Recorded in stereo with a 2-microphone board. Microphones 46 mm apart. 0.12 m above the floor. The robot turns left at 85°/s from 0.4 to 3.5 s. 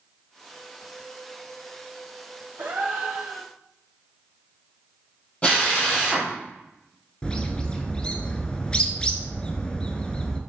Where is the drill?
25° left (ahead or behind), 3.5 m.